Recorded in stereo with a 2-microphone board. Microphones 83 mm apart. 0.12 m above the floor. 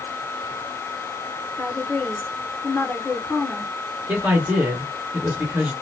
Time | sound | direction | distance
1.6 | a woman speaking | 20° left (ahead or behind) | 1.2 m
4.1 | a man speaking | 20° right (ahead or behind) | 1.9 m